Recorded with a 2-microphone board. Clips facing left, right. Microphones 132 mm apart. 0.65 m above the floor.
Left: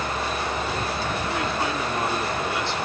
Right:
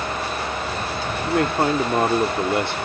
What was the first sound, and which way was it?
A man speaking, 55° right (ahead or behind).